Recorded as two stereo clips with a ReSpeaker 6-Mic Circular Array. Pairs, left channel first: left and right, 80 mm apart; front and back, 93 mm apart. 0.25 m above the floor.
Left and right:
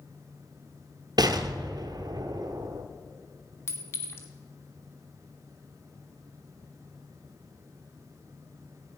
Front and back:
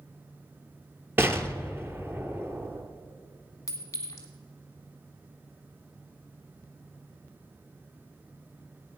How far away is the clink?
About 1.6 m.